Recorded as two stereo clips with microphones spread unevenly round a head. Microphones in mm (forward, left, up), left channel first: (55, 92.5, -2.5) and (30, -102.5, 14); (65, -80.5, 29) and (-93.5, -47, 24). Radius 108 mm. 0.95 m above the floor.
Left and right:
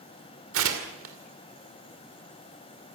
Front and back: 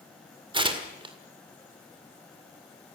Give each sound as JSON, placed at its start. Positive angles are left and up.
{"t": 0.5, "sound": "tearing paper", "azimuth_deg": -130, "distance_m": 2.5}